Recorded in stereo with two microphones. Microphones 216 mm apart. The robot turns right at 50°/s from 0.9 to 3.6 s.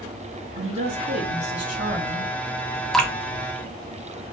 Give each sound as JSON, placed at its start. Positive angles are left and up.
{"t": 0.6, "sound": "a woman speaking", "azimuth_deg": -90, "distance_m": 1.5}
{"t": 2.9, "sound": "dripping", "side_deg": 0, "distance_m": 0.5}